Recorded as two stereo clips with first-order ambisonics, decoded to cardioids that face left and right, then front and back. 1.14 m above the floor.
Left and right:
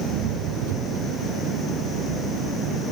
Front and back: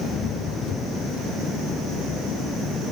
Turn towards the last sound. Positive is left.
turn(degrees=-65)